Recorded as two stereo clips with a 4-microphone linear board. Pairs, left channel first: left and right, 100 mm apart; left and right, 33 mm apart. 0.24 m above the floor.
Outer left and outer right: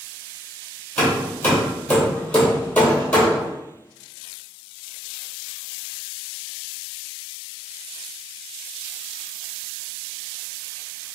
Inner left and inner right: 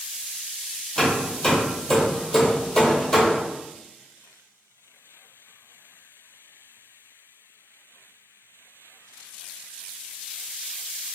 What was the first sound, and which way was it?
Hammering, 15° left (ahead or behind).